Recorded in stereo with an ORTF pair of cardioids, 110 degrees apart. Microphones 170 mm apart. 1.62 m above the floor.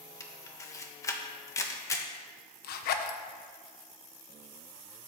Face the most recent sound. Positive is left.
turn(degrees=70)